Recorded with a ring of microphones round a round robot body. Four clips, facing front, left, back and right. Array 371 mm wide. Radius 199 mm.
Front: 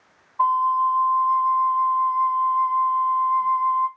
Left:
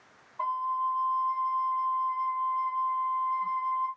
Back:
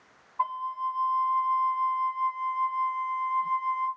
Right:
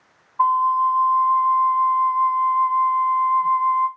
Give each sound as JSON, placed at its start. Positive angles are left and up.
{"t": 0.4, "sound": "a flute", "azimuth_deg": -70, "distance_m": 1.5}